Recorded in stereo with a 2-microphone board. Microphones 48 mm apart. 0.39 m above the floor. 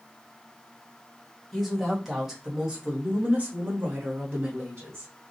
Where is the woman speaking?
Centre (ahead or behind), 1.4 m; by 5.1 s 50° right (ahead or behind), 1.4 m.